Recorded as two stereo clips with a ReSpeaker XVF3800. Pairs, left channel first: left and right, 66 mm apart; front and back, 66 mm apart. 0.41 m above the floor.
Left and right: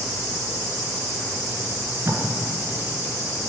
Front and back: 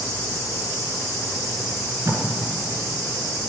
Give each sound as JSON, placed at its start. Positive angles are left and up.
{"t": 1.7, "sound": "tape being pulled", "azimuth_deg": -140, "distance_m": 1.8}